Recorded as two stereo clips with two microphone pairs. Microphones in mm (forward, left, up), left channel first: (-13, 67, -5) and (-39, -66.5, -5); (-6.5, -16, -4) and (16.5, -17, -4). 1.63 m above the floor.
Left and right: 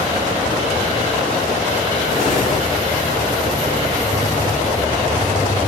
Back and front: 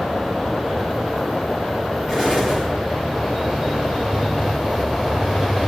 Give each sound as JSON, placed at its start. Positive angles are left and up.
{"t": 2.1, "sound": "an explosion", "azimuth_deg": 75, "distance_m": 6.5}